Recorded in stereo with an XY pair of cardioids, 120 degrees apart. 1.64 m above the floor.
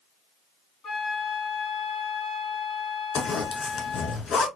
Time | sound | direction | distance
0.8 | a flute | 40° left | 3 m
3.1 | a zipper | 45° left | 2 m